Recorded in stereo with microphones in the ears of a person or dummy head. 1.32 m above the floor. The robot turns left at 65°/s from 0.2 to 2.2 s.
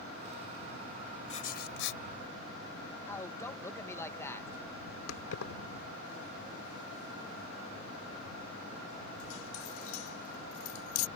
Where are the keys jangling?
80° left.